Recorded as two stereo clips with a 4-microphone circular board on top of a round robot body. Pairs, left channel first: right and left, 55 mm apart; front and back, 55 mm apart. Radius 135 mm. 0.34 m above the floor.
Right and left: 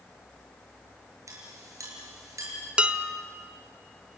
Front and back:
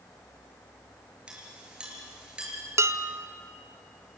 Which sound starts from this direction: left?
A clink, at 1.3 s.